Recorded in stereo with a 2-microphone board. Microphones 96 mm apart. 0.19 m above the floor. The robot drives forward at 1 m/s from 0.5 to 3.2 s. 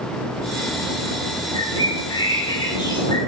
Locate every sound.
1.5 s a bird: 65° left (ahead or behind), 5.5 m; by 3.2 s 50° left (ahead or behind), 6.5 m